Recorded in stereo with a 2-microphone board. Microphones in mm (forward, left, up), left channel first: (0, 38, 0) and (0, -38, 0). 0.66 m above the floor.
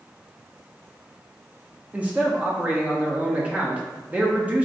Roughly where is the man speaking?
Centre.